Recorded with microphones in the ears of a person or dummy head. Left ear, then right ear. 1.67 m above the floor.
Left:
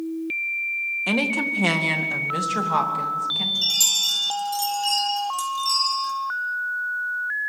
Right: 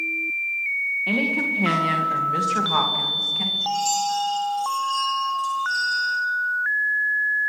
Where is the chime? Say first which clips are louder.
Left 2 dB; 80° left, 6 m.